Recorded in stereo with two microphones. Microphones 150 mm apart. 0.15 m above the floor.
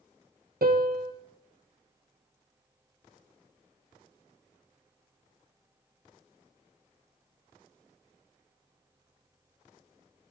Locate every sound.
0.6 s a piano: 75° right (ahead or behind), 1.4 m